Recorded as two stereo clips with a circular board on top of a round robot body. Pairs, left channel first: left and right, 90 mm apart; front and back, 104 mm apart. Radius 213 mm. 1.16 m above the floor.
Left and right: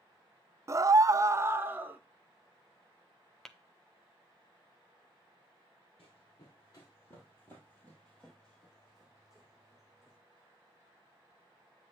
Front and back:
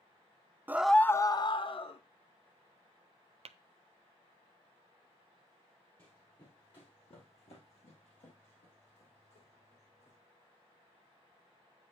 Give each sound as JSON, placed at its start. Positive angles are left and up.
{"t": 0.7, "sound": "a scream", "azimuth_deg": -125, "distance_m": 0.6}
{"t": 3.5, "sound": "tapping", "azimuth_deg": 175, "distance_m": 0.6}
{"t": 6.0, "sound": "running footsteps", "azimuth_deg": 65, "distance_m": 1.6}